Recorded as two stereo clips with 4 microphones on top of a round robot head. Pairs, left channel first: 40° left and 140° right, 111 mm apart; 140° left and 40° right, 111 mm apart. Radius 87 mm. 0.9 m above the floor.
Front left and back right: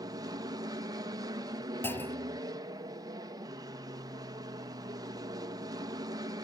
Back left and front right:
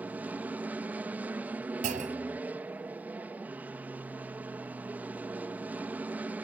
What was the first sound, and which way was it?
An aircraft, 110° right.